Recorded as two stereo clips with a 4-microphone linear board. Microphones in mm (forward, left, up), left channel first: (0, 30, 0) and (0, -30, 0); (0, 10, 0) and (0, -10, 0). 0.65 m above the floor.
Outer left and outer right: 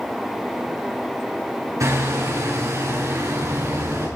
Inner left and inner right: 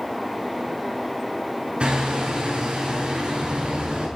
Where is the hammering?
65° right (ahead or behind), 8.5 m.